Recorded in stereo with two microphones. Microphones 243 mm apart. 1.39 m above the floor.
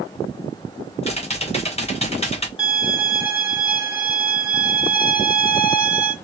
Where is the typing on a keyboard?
25° left (ahead or behind), 0.9 m.